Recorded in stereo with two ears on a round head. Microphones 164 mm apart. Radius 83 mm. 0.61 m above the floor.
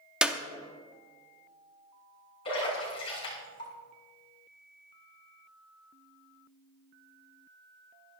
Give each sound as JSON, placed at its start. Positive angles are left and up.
{"t": 0.2, "sound": "a clap", "side_deg": -5, "distance_m": 0.7}
{"t": 2.5, "sound": "a splash", "side_deg": 25, "distance_m": 4.5}